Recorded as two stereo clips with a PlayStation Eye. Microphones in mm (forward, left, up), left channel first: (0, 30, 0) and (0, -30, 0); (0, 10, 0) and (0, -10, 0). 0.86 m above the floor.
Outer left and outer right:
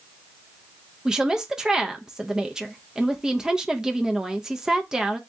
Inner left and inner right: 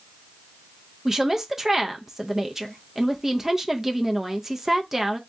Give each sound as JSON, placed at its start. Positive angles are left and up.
{"t": 1.1, "sound": "a woman speaking", "side_deg": -10, "distance_m": 0.6}